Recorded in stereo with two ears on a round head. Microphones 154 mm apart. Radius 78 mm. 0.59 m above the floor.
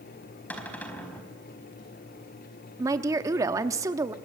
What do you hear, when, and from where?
0.5 s a cupboard door: 10° left (ahead or behind), 4.5 m
2.8 s a woman speaking: 20° right (ahead or behind), 1.1 m